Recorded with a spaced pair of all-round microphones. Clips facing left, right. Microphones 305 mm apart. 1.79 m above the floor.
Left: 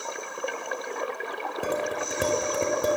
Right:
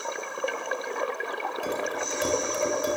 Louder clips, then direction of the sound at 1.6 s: Left 3 dB; 60° left (ahead or behind).